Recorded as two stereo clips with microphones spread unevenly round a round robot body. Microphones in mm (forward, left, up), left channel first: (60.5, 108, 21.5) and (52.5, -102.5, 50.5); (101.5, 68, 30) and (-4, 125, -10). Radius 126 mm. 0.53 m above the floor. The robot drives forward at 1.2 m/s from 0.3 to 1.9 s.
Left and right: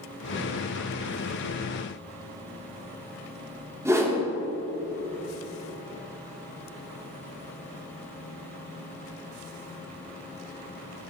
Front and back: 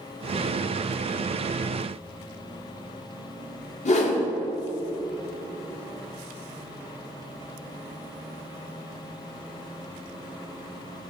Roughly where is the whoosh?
Ahead.